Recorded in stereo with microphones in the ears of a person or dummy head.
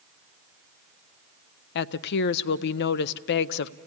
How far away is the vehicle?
I don't hear a vehicle.